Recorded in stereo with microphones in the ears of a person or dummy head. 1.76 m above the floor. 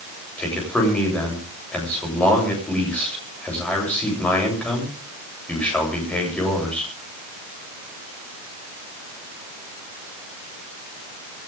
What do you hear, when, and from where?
0.4 s a man speaking: 10° left (ahead or behind), 8.5 m